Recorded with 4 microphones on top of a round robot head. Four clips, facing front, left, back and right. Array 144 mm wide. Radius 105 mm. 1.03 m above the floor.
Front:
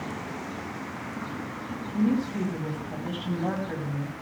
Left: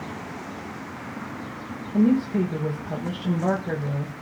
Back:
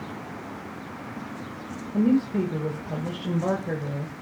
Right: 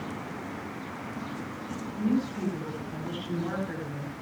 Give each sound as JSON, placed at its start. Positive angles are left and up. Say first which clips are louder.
{"t": 1.9, "sound": "a woman speaking", "louder": "left 8 dB, back 4 dB", "azimuth_deg": 130, "distance_m": 4.0}